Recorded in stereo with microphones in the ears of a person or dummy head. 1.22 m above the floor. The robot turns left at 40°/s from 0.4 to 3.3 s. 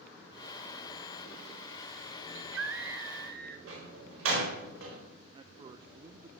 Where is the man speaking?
25° right (ahead or behind), 0.6 m.